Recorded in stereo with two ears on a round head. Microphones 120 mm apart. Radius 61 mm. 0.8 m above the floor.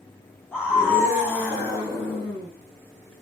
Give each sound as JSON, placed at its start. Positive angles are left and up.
{"t": 0.5, "sound": "a scream", "side_deg": 15, "distance_m": 7.0}